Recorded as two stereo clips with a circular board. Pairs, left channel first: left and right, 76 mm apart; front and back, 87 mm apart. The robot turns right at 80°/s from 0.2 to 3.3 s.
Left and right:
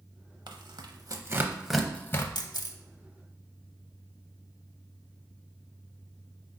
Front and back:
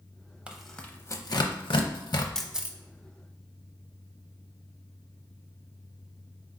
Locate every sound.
0.5 s tearing paper: 105° right, 0.6 m; by 2.2 s 40° left, 0.6 m
2.4 s a camera shutter: 80° left, 0.6 m; by 2.8 s 115° left, 0.6 m